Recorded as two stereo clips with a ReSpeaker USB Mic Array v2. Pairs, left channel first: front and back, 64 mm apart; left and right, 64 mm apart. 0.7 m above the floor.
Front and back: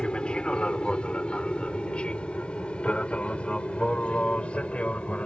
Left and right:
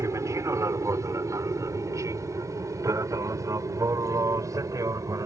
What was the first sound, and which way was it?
An aircraft, 70° right.